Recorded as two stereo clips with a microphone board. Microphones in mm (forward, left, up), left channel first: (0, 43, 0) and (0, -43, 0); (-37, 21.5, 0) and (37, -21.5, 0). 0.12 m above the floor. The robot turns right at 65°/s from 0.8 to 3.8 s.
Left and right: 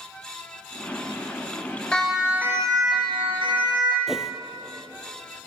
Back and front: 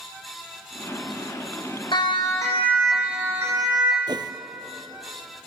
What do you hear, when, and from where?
1.9 s a siren: 170° left, 7.5 m; by 4.0 s 55° right, 8 m
4.1 s a whoosh: 5° right, 1.0 m